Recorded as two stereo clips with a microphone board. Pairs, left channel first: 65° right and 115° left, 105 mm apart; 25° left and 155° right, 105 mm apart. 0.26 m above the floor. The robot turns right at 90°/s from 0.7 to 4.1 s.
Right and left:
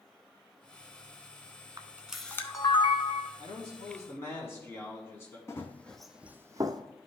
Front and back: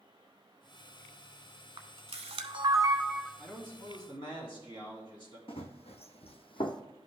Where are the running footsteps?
5° right, 1.0 m; by 6.8 s 70° left, 0.9 m.